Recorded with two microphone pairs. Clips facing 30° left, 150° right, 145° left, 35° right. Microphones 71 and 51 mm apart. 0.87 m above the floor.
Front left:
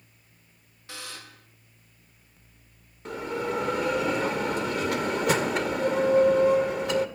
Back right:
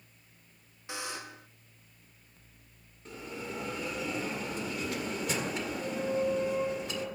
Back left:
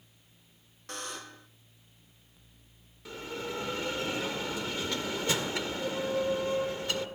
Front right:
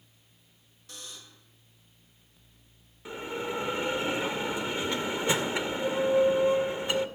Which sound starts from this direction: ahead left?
A bell, at 3.0 s.